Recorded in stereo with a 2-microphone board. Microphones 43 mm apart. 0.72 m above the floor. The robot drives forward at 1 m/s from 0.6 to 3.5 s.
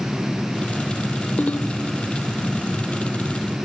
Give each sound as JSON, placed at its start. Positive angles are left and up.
{"t": 1.4, "sound": "a ringtone", "side_deg": 35, "distance_m": 1.2}